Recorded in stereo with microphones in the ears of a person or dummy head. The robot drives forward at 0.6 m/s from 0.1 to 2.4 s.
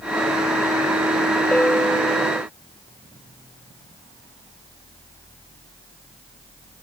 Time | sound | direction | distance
1.5 | a bell | 5° left (ahead or behind) | ?